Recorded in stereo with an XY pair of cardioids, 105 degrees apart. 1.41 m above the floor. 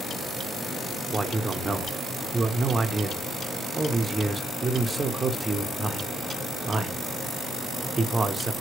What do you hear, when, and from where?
1.1 s a man speaking: 25° right, 0.7 m